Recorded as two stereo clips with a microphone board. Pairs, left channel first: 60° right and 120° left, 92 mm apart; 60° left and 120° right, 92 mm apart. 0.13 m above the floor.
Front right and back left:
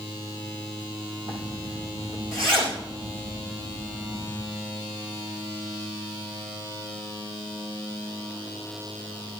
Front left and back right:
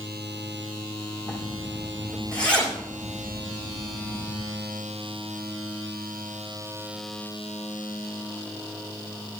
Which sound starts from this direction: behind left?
A zipper, at 1.3 s.